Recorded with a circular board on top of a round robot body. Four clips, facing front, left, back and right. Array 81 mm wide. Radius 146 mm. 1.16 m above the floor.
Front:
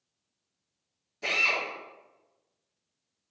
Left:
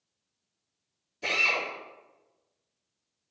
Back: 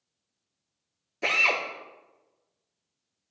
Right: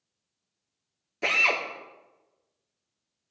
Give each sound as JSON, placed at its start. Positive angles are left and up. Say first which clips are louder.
{"t": 1.2, "sound": "a drill", "louder": "right 3 dB, back 3 dB", "azimuth_deg": -115, "distance_m": 3.0}